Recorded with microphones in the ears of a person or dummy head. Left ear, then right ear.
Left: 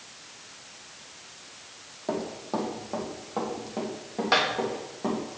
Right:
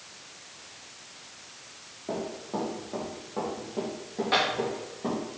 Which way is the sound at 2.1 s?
55° left (ahead or behind).